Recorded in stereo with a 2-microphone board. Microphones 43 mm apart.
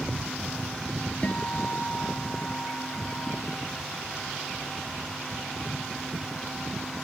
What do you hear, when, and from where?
1.2 s a guitar: 30° left (ahead or behind)